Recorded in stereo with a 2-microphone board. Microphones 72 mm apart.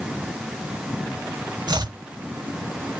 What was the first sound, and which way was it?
Chopping, 80° right.